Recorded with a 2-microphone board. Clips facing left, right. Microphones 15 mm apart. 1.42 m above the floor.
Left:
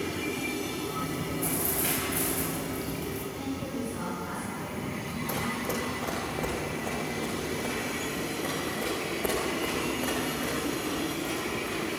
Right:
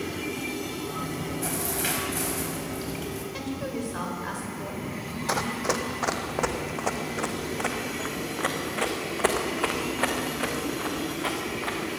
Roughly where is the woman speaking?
Right.